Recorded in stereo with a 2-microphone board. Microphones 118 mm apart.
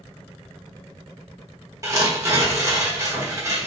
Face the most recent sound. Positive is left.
turn(degrees=-25)  # may be behind; listen again after turning